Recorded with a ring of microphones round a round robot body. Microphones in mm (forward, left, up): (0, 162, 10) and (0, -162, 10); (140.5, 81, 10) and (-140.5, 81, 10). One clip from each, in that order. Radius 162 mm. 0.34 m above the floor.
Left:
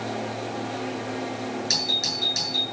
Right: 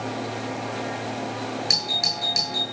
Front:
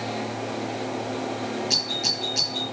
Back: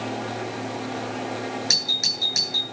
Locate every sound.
1.7 s a doorbell: 175° right, 8 m